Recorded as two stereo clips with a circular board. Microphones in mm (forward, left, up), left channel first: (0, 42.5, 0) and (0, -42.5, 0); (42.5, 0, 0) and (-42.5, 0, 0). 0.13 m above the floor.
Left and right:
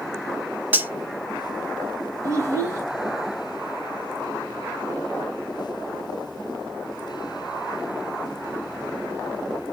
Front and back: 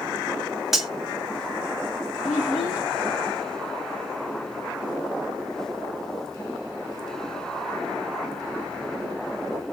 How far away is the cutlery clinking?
About 0.6 m.